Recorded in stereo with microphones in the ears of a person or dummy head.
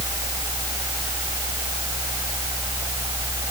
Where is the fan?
15° right (ahead or behind).